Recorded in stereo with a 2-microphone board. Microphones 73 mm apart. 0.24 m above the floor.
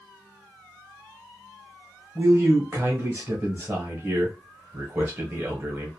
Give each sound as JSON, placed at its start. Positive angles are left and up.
{"t": 2.1, "sound": "a man speaking", "side_deg": -30, "distance_m": 1.0}